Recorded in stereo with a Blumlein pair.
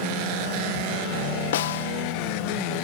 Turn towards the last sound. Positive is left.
turn(degrees=55)